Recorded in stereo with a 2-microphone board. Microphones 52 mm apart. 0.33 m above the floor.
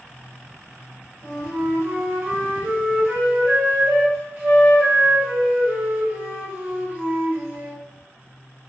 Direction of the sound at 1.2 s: 40° right (ahead or behind).